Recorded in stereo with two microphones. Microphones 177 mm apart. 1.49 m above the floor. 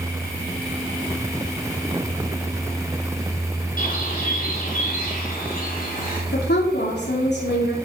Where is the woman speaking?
75° left (ahead or behind), 3 m.